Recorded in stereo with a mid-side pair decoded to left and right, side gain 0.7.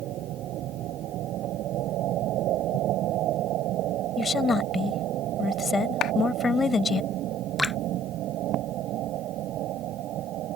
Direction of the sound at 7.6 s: 10° left.